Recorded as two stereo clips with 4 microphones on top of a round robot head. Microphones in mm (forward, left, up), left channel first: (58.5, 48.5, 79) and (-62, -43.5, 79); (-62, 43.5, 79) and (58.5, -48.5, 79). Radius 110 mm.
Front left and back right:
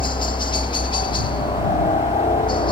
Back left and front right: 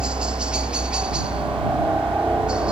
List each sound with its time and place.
0.0 s a helicopter: 40° left